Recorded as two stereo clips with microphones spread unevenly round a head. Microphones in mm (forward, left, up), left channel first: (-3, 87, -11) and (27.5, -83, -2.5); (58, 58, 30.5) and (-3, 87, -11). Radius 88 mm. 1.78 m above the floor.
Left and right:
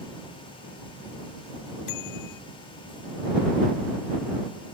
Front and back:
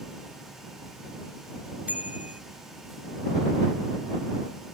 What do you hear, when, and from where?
1.9 s a bicycle bell: 80° left